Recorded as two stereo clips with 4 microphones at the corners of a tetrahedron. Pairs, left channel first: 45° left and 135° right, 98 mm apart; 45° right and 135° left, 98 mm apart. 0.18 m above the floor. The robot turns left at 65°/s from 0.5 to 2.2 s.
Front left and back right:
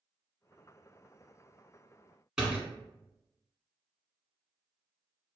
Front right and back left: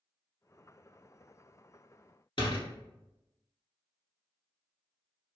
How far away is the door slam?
About 1.3 m.